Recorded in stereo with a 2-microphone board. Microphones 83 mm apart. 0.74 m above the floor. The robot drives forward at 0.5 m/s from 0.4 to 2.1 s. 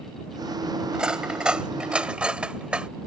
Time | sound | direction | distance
0.9 | cutlery clinking | 10° right (ahead or behind) | ?